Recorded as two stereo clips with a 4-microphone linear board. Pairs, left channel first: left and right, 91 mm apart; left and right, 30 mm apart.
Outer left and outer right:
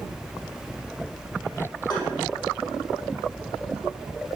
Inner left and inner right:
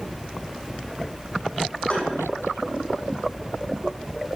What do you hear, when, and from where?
1.9 s tapping: 50° left (ahead or behind), 4.5 m